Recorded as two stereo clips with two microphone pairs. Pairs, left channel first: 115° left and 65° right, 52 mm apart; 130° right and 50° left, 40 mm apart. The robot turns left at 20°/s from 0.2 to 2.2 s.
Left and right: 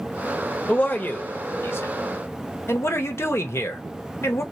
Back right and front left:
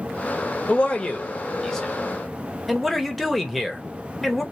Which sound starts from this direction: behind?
A man speaking, at 0.7 s.